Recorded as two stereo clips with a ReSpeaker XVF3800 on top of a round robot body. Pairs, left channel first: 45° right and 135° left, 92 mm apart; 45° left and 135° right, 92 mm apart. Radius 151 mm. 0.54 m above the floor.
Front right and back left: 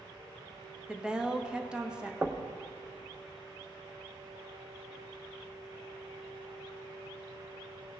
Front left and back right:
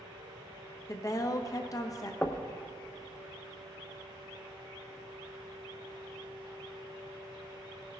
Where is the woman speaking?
60° left, 1.1 m.